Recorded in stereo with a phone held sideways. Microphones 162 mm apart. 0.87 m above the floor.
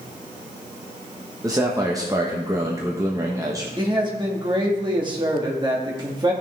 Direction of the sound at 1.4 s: 20° right (ahead or behind).